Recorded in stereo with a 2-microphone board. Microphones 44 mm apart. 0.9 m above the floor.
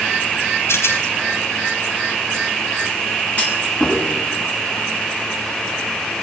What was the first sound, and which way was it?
A rattle, 85° left.